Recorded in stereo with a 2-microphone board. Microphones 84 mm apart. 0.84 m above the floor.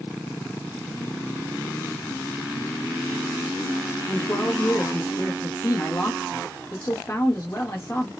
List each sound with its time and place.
4.1 s a man speaking: 35° left (ahead or behind), 0.9 m